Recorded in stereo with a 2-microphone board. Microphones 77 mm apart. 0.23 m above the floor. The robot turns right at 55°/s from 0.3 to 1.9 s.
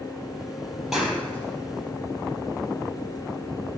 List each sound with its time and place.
0.9 s a clap: 5° right (ahead or behind), 5.5 m; by 1.9 s 50° left (ahead or behind), 5.5 m